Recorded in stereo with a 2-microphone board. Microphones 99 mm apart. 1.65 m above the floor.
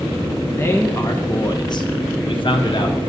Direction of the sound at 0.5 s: 20° left (ahead or behind).